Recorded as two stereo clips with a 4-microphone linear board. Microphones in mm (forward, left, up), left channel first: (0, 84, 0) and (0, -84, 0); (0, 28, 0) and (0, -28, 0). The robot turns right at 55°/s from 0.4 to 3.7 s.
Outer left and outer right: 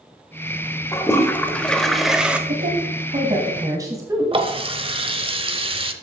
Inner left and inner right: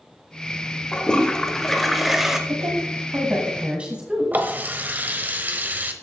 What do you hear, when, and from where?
0.9 s a toilet flushing: 15° left (ahead or behind), 1.1 m; by 2.4 s 10° right (ahead or behind), 1.1 m
2.5 s a woman speaking: 65° right (ahead or behind), 1.9 m; by 4.3 s 20° right (ahead or behind), 1.9 m
4.3 s a running tap: 35° right (ahead or behind), 0.9 m